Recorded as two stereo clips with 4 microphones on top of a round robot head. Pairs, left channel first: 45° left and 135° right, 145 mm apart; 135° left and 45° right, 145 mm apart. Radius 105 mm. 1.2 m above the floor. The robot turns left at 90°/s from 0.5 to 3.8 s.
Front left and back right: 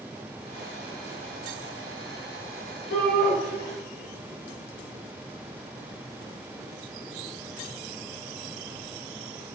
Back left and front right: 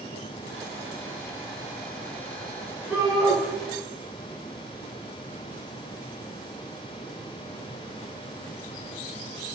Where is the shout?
35° left, 4 m; by 3.4 s 5° right, 4 m.